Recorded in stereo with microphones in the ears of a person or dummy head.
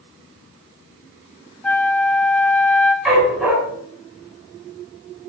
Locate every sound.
1.6 s a flute: 5° left (ahead or behind), 1.1 m
3.0 s a dog barking: 5° right (ahead or behind), 7.5 m